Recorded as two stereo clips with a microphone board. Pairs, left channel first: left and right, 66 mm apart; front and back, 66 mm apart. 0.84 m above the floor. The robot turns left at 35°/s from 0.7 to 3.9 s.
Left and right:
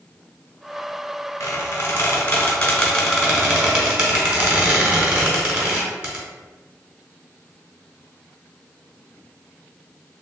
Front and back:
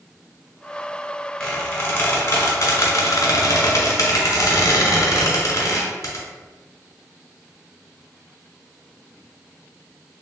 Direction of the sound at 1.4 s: 70° left.